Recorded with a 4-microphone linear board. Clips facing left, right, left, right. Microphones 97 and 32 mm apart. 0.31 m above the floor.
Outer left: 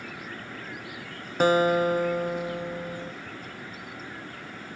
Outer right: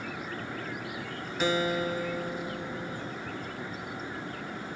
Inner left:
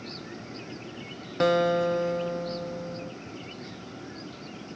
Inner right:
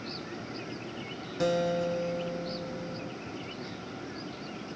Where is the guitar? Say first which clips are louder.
Outer left 7 dB, inner left 5 dB; 45° left (ahead or behind), 0.6 m.